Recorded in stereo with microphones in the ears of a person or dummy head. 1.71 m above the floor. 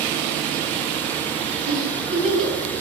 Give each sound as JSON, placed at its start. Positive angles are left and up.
{"t": 1.7, "sound": "a giggle", "side_deg": -70, "distance_m": 3.5}